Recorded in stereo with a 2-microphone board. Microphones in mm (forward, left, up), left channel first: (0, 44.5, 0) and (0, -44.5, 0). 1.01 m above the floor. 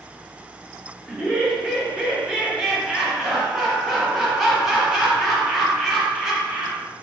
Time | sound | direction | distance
1.1 | laughter | 5° right (ahead or behind) | 0.8 m